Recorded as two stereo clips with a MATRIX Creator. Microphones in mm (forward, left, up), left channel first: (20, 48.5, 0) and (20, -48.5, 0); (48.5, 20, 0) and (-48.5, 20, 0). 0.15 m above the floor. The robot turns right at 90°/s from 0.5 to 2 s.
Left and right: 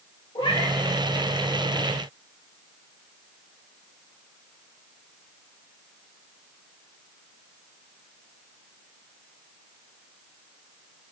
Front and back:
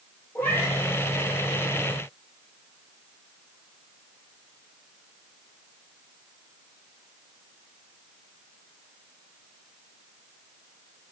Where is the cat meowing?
75° left, 1.7 m; by 0.7 s 95° left, 1.7 m.